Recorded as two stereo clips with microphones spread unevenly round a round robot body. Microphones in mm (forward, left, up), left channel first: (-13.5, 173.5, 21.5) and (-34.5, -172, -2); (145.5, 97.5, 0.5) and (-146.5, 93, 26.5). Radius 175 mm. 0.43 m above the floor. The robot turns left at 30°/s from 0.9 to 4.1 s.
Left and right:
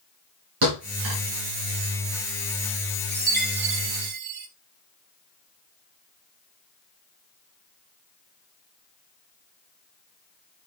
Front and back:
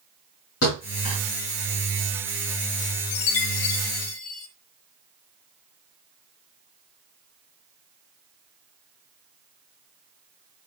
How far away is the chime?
About 1.3 m.